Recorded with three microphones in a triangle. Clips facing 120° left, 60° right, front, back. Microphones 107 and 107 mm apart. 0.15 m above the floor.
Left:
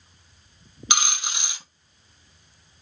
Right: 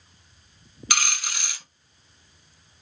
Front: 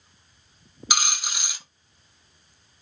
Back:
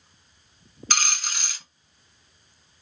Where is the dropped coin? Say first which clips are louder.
Left 2 dB, front 1 dB; 70° left, 0.5 m.